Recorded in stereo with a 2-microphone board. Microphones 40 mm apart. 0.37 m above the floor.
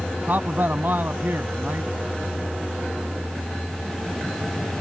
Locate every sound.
0.3 s a man speaking: 55° right (ahead or behind)